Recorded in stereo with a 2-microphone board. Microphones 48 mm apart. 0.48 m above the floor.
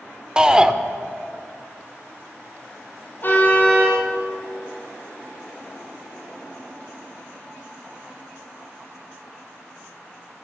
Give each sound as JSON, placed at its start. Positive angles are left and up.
{"t": 0.4, "sound": "a shout", "side_deg": -15, "distance_m": 1.3}
{"t": 3.2, "sound": "a car horn", "side_deg": 40, "distance_m": 6.0}